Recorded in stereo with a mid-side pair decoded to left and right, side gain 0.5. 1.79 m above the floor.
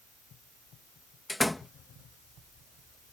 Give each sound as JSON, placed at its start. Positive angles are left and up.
{"t": 1.3, "sound": "a door slam", "azimuth_deg": 10}